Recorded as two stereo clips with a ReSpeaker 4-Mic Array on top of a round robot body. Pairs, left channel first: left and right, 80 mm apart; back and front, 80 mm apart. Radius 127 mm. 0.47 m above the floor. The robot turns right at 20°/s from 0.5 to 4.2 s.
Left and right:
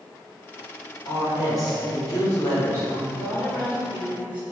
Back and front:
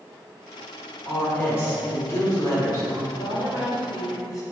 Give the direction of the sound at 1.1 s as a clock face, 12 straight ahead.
8 o'clock.